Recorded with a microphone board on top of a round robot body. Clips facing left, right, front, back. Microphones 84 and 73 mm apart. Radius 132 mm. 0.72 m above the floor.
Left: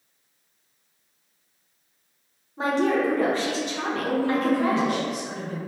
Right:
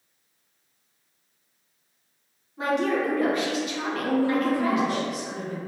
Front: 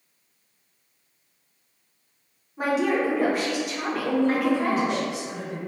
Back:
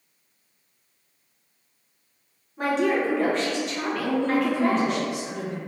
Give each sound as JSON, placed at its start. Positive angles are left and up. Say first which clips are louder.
{"t": 2.6, "sound": "a woman speaking", "louder": "left 2 dB, even", "azimuth_deg": 75, "distance_m": 0.8}
{"t": 4.0, "sound": "a woman speaking", "louder": "even, front 1 dB", "azimuth_deg": -175, "distance_m": 1.5}